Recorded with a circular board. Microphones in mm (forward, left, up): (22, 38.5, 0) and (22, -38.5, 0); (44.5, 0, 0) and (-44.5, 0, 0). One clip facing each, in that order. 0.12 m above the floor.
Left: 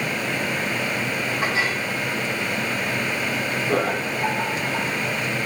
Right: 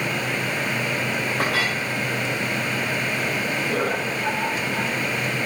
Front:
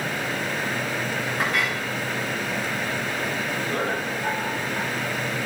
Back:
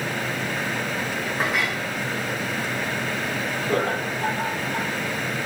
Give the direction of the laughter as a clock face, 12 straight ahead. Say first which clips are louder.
Left 4 dB, back 5 dB; 7 o'clock.